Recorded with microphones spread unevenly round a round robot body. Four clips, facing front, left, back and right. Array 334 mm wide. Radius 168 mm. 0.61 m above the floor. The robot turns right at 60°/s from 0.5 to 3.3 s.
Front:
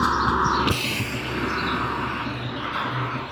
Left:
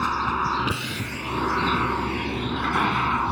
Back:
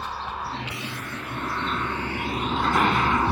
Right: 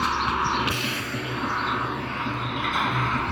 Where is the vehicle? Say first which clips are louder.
Even, front 10 dB; 5° left; by 3.3 s 175° left.